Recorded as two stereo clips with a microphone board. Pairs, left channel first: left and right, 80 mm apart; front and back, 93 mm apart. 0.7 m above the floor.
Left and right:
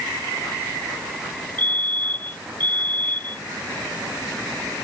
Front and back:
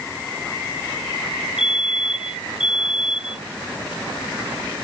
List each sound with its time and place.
1.6 s a fire alarm: 20° left